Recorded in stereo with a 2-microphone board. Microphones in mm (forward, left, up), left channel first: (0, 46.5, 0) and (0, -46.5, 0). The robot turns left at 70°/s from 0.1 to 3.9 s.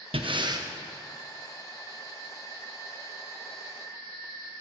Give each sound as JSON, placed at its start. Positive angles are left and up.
{"t": 0.1, "sound": "breathing", "azimuth_deg": -105, "distance_m": 0.8}